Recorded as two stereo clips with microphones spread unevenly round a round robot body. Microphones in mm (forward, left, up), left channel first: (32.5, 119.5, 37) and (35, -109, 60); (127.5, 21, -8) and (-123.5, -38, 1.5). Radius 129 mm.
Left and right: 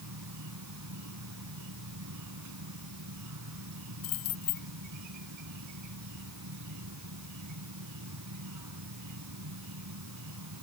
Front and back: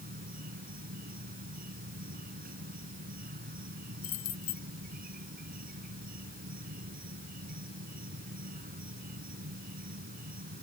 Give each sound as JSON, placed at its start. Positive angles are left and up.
{"t": 0.0, "sound": "an insect", "azimuth_deg": -110}
{"t": 4.0, "sound": "keys jangling", "azimuth_deg": 75}